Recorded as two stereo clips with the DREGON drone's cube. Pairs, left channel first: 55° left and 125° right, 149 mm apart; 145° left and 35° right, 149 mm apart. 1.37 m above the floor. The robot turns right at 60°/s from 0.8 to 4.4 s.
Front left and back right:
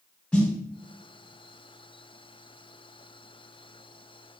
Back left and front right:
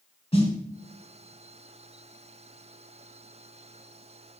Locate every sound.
0.3 s a snare drum: 135° left, 1.3 m